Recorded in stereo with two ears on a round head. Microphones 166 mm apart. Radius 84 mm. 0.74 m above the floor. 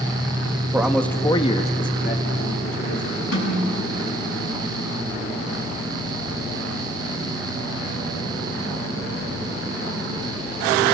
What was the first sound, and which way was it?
A man speaking, 10° right (ahead or behind).